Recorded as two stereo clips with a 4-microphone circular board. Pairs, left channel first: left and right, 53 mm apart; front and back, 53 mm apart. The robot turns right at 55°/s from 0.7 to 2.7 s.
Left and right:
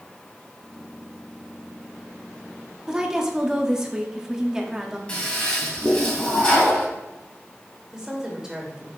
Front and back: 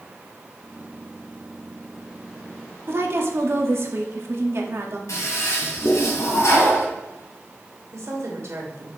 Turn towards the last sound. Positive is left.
turn(degrees=-165)